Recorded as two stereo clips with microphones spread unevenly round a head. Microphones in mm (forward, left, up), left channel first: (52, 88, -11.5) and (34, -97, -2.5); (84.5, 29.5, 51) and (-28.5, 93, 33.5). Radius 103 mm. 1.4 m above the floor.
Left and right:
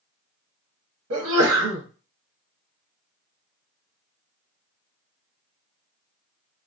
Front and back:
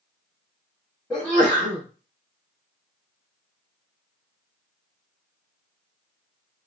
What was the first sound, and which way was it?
A sneeze, 115° right.